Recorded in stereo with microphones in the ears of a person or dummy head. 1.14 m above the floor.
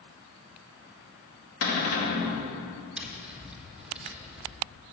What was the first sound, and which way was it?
A cupboard door, 75° left (ahead or behind).